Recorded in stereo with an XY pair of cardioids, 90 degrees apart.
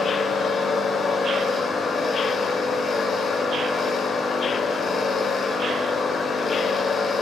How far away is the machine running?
About 0.9 m.